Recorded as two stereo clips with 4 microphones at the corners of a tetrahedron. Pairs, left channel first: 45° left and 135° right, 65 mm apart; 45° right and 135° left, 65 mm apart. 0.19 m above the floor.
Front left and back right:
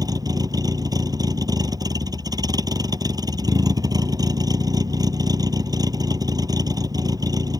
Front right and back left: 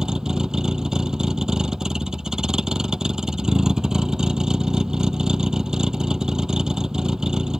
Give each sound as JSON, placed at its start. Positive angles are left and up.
{"t": 0.0, "sound": "a vehicle", "azimuth_deg": -145}